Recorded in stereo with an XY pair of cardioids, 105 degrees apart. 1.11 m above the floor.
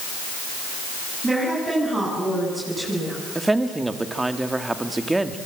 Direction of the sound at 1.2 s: 20° right.